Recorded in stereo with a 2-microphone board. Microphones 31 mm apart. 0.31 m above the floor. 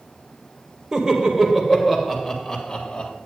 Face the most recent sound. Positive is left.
turn(degrees=25)  # may be behind; listen again after turning